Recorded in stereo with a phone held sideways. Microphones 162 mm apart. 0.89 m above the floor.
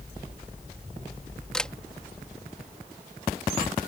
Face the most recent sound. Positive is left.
turn(degrees=5)  # may be behind; listen again after turning